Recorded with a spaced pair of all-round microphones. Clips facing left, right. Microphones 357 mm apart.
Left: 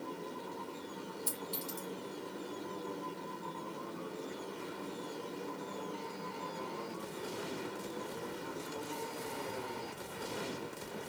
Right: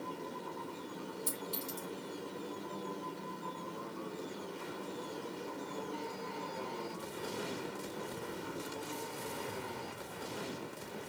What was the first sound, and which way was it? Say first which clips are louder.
A clink: even; 60° right (ahead or behind).